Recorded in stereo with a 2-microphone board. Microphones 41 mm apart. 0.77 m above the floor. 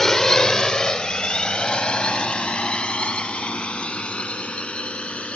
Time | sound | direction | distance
0.0 | a drone | 10° left (ahead or behind) | ?